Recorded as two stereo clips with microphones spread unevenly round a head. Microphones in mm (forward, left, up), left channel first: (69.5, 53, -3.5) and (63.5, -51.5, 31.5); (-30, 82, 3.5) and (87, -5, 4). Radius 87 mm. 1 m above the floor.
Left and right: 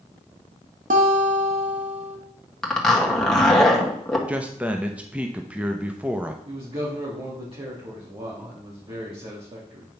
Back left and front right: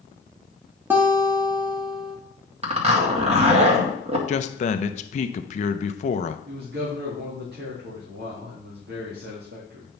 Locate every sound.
0.9 s a guitar: 115° right, 1.3 m
2.6 s a zipper: 10° left, 2.5 m
4.3 s a man speaking: 175° left, 0.6 m
6.5 s a man speaking: 55° right, 2.5 m